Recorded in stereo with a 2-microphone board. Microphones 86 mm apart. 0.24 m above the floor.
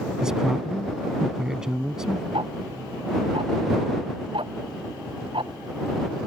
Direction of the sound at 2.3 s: 80° right.